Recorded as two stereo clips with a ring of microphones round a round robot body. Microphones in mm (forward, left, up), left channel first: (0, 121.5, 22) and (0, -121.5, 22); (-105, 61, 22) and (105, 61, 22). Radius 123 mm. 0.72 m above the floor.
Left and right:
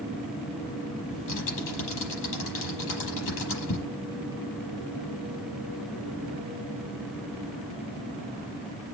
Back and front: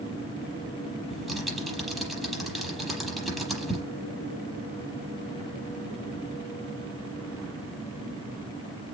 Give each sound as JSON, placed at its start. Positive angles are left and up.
{"t": 1.1, "sound": "typing on a keyboard", "azimuth_deg": 90, "distance_m": 6.5}